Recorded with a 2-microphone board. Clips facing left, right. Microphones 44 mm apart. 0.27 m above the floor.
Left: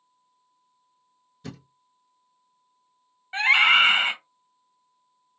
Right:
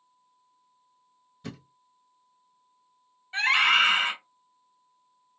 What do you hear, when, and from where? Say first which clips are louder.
1.4 s a thud: even; 5° right (ahead or behind), 1.7 m
3.3 s a scream: left 4 dB; 30° left (ahead or behind), 1.3 m